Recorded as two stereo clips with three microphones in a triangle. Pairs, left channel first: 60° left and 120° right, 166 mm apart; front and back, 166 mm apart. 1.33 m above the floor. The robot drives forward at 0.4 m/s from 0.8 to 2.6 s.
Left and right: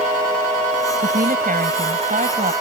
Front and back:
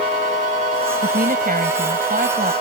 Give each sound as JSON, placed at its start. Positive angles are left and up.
{"t": 1.0, "sound": "a woman speaking", "azimuth_deg": -150}